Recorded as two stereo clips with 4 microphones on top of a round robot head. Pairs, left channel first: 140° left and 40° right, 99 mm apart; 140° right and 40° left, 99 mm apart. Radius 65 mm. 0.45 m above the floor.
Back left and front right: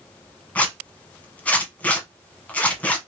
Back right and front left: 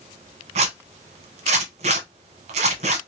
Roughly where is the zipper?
Ahead left.